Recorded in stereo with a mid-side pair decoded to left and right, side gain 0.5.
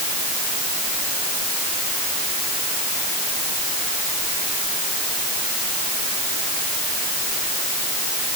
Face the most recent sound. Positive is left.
No sound to turn to.